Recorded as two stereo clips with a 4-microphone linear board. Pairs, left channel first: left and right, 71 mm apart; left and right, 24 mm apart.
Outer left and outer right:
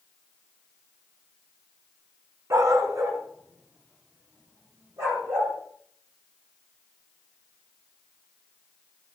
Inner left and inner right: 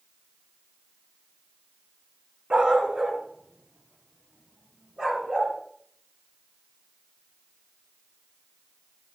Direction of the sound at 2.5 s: 45° right (ahead or behind).